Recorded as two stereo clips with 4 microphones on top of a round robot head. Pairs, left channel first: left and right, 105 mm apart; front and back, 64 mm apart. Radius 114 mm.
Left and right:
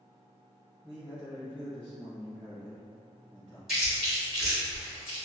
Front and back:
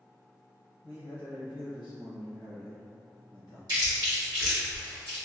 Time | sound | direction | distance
0.8 | a man speaking | 15° right | 0.9 m
3.7 | chewing | straight behind | 1.8 m